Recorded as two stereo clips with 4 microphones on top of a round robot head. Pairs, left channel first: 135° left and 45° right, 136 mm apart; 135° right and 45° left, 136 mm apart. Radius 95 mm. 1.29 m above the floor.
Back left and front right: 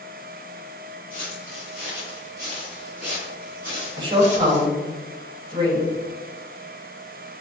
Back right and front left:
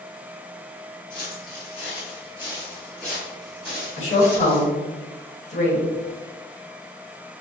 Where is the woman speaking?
100° right, 1.5 m.